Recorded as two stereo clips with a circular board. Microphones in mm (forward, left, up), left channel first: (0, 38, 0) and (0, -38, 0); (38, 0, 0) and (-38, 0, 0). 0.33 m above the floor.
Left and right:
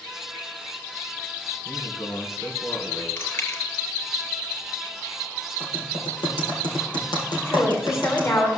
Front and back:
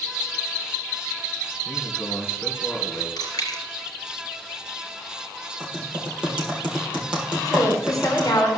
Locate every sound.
1.6 s a man speaking: 70° left, 3 m
3.2 s chewing: 35° left, 3 m
5.6 s typing on a keyboard: 105° left, 3.5 m
7.5 s a woman speaking: 30° left, 3 m